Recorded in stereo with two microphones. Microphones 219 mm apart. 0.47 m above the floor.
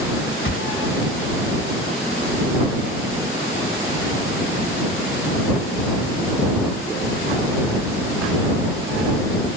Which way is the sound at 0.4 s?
70° left (ahead or behind).